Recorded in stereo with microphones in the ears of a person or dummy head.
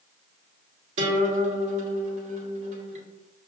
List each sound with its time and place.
1.0 s a guitar: 40° right (ahead or behind), 1.2 m